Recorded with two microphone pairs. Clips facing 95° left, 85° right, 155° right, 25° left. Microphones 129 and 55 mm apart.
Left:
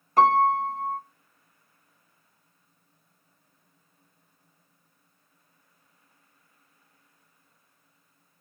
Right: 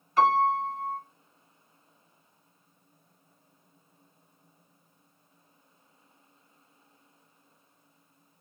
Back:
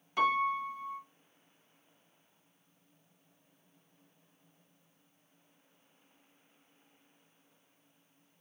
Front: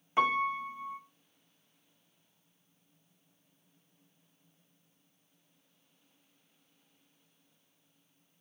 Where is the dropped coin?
No dropped coin in this recording.